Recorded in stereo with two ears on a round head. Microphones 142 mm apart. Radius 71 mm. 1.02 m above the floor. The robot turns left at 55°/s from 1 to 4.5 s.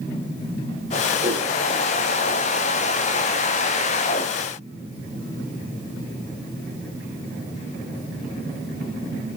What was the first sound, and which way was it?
A whoosh, 55° right (ahead or behind).